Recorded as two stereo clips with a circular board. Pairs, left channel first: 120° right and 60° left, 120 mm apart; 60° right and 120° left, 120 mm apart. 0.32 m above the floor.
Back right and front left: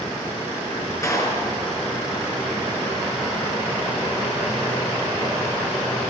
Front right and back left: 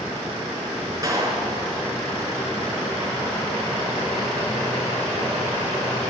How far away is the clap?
About 4.5 m.